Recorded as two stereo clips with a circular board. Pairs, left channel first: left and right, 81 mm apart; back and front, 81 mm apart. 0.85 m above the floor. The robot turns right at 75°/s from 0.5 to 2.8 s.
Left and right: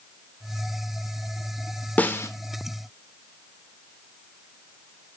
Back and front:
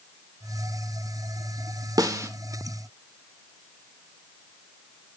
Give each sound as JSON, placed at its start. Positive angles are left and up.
{"t": 2.0, "sound": "a snare drum", "azimuth_deg": 25, "distance_m": 0.7}